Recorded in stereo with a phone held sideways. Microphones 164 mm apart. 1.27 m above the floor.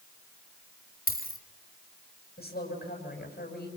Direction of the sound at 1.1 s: 70° left (ahead or behind).